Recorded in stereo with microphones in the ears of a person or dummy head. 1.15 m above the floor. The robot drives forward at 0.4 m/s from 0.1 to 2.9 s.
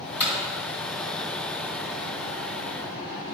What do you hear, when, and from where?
0.2 s hammering: 10° right (ahead or behind), 2.0 m